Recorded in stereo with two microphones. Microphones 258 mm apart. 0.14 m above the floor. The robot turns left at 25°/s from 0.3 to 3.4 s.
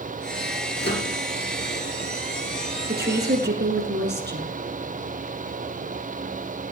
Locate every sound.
0.8 s a microwave: 45° left (ahead or behind), 2.5 m; by 1.1 s 40° left (ahead or behind), 2.5 m
2.9 s a woman speaking: 40° right (ahead or behind), 1.5 m; by 4.5 s 45° right (ahead or behind), 1.5 m